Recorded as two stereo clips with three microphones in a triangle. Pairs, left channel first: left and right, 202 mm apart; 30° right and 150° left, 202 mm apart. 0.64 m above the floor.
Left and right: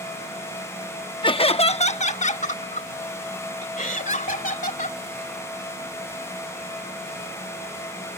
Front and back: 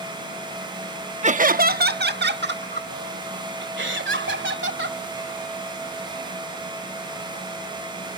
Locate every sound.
1.2 s laughter: 135° left